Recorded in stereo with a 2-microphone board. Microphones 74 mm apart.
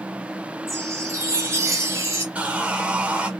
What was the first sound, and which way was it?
A chime, 45° right (ahead or behind).